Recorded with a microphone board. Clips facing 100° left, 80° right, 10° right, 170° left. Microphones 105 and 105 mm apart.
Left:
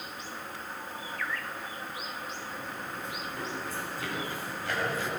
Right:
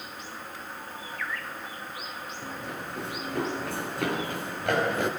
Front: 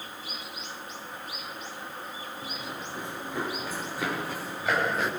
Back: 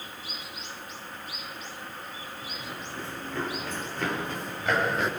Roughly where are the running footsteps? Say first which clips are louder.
Right 2 dB, front 1 dB; right.